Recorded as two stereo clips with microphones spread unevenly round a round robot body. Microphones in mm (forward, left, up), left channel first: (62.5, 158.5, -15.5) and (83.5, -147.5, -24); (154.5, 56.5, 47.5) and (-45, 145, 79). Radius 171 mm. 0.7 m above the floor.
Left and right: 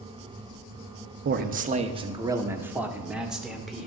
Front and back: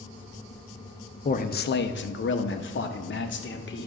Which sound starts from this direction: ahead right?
A man speaking, at 1.2 s.